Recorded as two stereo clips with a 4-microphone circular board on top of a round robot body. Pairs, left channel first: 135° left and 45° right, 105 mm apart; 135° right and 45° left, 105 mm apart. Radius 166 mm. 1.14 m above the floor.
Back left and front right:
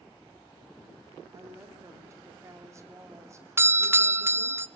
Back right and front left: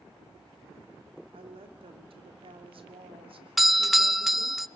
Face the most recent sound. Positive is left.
turn(degrees=-40)